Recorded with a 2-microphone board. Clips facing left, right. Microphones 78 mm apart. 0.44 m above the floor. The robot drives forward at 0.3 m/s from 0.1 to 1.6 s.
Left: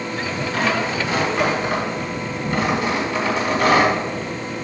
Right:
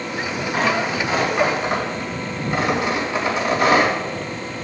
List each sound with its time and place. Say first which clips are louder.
0.5 s tearing paper: right 1 dB; 20° right (ahead or behind), 4 m